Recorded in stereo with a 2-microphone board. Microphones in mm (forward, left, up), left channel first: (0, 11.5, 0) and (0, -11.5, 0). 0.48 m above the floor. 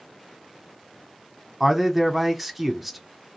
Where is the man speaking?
10° right (ahead or behind), 0.9 m.